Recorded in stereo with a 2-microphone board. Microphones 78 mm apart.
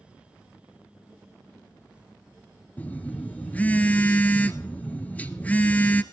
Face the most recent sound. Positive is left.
turn(degrees=20)  # may be behind; listen again after turning